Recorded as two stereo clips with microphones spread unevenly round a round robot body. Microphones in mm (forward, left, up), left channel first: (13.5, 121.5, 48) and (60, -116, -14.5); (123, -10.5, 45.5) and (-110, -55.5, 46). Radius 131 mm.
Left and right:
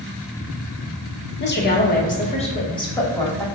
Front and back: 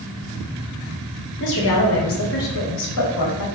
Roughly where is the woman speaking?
Ahead left.